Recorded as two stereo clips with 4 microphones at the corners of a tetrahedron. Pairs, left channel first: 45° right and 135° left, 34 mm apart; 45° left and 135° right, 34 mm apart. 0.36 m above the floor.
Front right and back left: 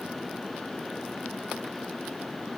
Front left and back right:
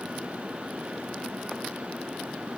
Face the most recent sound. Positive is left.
No sound to turn to.